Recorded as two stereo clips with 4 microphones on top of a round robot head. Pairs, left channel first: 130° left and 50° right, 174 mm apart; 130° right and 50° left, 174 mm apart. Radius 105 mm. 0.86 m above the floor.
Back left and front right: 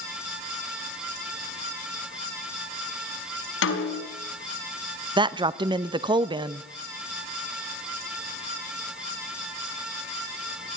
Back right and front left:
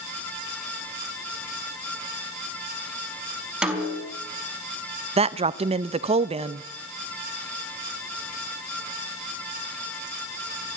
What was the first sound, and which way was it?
A snare drum, 135° left.